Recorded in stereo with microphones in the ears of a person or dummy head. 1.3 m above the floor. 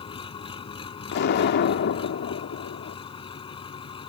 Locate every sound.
0.0 s an engine running: 30° left (ahead or behind)
1.1 s an explosion: 50° left (ahead or behind)